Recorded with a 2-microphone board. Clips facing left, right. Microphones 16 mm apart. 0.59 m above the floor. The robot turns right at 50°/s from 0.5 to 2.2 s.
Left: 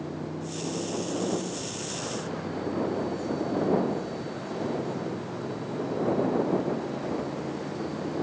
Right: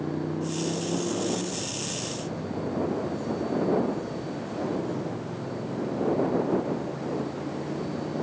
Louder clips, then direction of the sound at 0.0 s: Right 5 dB; 60° right (ahead or behind).